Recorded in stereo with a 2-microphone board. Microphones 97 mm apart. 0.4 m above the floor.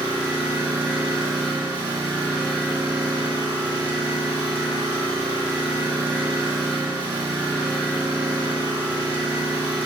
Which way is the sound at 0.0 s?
20° right (ahead or behind).